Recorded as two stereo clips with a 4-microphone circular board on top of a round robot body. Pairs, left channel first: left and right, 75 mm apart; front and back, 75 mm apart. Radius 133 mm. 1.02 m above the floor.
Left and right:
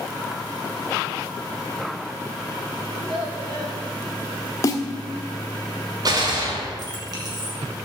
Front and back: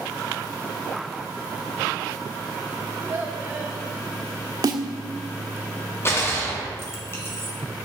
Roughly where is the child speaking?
Right.